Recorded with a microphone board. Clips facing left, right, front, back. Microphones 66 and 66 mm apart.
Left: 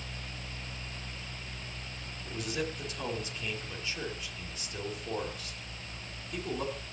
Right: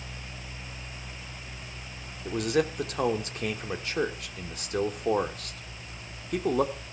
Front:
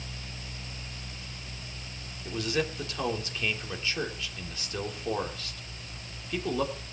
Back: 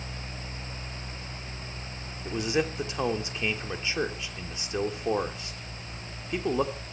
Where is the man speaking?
115° right, 2.5 m.